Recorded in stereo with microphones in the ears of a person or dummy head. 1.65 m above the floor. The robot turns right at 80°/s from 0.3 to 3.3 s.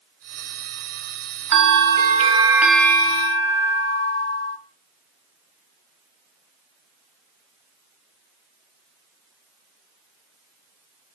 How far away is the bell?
About 0.9 m.